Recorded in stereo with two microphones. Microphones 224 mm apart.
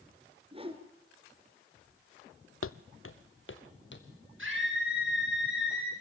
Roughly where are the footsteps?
Left.